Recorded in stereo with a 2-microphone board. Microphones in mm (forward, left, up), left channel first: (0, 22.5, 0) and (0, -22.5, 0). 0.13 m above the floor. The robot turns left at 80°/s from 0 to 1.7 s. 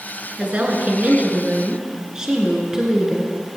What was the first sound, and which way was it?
A woman speaking, 45° right.